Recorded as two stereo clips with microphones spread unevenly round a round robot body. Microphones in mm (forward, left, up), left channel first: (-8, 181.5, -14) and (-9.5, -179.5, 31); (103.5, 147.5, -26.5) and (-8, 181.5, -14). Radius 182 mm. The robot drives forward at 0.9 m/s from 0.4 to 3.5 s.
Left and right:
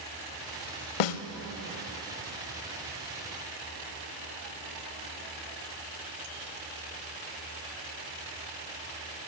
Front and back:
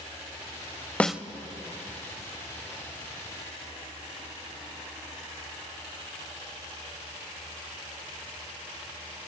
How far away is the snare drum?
About 0.6 m.